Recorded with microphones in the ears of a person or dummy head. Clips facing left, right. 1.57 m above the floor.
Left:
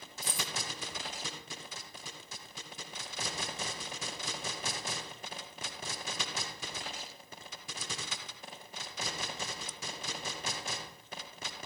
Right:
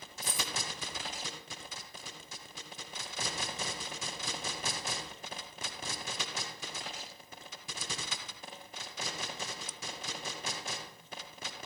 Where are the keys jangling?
25° left (ahead or behind), 0.9 m.